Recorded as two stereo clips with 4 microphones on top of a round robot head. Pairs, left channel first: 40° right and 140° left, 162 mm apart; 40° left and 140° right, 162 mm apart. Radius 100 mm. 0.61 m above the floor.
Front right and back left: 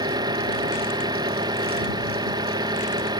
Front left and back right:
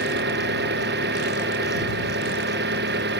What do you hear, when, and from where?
0.0 s an engine running: 155° right